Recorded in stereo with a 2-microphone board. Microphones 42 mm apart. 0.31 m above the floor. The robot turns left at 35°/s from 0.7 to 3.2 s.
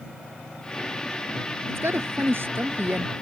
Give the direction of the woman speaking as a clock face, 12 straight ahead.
3 o'clock.